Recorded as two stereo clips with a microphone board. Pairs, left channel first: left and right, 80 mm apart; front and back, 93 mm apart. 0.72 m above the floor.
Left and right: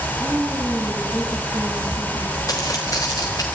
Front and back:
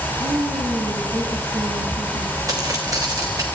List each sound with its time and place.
0.2 s a woman speaking: 165° right, 7 m
2.5 s footsteps: 130° left, 3.5 m